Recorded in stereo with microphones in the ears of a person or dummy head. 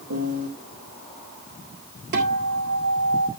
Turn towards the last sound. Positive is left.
turn(degrees=-60)  # may be behind; listen again after turning